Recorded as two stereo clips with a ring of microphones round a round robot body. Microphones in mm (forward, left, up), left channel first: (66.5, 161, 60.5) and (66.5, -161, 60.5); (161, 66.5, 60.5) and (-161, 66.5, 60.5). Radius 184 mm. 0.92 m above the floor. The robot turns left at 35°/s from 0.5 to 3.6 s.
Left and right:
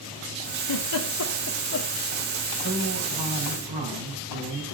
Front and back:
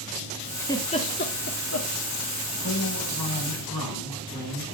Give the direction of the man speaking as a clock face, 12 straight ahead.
1 o'clock.